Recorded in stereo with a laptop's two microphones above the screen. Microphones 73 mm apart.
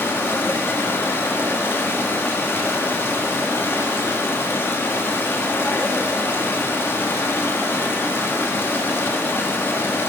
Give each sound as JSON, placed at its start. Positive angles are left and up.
{"t": 0.0, "sound": "running water", "side_deg": 35, "distance_m": 1.1}